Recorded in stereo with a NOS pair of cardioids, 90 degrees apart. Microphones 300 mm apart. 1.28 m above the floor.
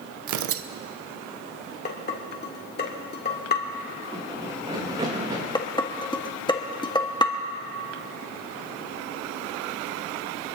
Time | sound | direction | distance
0.3 | tearing paper | 70° right | 0.7 m
1.9 | dishes clattering | 35° left | 2 m
4.1 | running footsteps | 15° right | 4.5 m
5.5 | dishes clattering | 15° left | 1.4 m